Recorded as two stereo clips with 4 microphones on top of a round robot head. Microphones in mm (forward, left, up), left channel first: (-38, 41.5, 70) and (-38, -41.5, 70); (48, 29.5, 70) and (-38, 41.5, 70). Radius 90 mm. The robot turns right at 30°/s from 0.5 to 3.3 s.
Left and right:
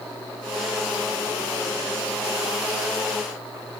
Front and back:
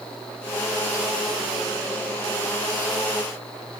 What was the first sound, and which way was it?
Only background noise.